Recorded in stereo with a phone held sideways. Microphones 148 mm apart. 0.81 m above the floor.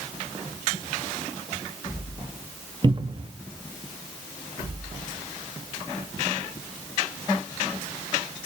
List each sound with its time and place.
2.8 s a cupboard door: 35° right (ahead or behind), 0.9 m